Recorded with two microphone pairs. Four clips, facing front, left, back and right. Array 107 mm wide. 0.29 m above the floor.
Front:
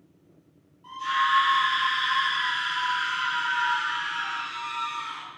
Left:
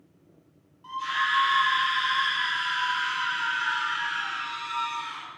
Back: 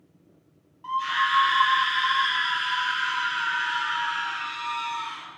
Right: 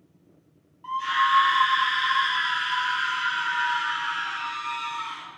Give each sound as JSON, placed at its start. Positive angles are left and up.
{"t": 0.8, "sound": "a scream", "azimuth_deg": -135, "distance_m": 1.5}